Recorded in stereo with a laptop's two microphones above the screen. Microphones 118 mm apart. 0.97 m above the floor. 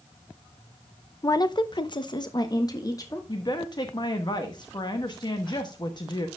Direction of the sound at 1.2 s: 30° left (ahead or behind).